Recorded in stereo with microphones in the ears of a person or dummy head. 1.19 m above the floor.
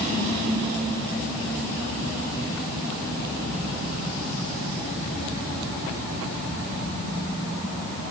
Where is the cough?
I don't hear a cough.